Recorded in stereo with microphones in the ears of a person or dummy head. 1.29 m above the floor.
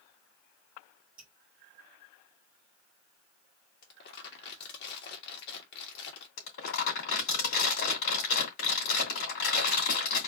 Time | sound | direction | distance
1.2 | dripping | 5° right (ahead or behind) | 0.9 m
3.8 | crumpling | 60° left (ahead or behind) | 1.4 m
6.4 | crumpling | 70° left (ahead or behind) | 3 m